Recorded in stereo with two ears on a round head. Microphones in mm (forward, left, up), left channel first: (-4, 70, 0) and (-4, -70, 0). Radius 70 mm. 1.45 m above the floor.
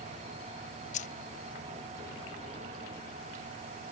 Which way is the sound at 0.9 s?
50° left (ahead or behind).